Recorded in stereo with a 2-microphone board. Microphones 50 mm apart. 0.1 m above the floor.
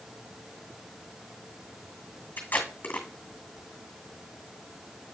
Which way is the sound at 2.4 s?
35° left (ahead or behind).